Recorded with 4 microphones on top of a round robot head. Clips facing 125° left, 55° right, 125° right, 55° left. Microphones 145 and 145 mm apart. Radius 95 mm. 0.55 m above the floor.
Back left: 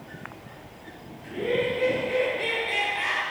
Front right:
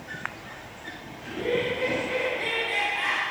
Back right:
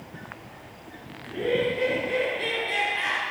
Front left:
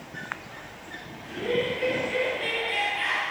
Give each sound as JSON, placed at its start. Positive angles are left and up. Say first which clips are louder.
{"t": 1.2, "sound": "laughter", "louder": "back left 1 dB, back right 2 dB", "azimuth_deg": -165, "distance_m": 2.5}